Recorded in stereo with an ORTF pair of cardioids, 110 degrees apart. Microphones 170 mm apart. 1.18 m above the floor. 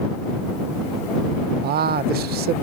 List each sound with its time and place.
1.6 s a man speaking: 65° right